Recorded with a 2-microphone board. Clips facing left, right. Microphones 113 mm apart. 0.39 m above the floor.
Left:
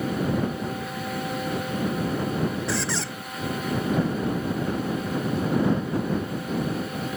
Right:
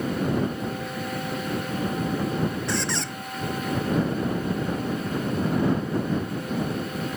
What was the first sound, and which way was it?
A squeak, centre (ahead or behind).